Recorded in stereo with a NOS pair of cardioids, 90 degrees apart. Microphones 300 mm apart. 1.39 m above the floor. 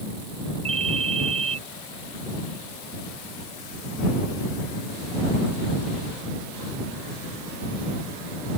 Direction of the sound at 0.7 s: 20° right.